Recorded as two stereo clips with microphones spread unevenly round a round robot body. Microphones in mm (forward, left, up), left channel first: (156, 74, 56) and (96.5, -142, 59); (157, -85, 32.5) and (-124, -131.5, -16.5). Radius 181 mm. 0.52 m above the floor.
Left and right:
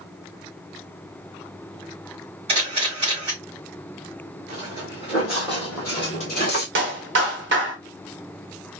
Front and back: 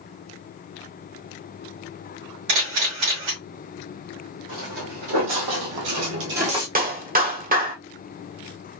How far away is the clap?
About 1.1 m.